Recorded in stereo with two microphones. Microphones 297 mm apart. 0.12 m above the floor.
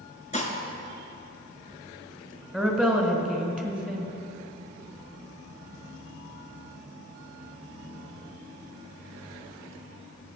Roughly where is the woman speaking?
Centre.